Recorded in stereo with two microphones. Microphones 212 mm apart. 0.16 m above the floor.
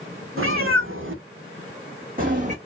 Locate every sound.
0.4 s a cat meowing: 90° right, 1.1 m; by 2.5 s 35° right (ahead or behind), 1.2 m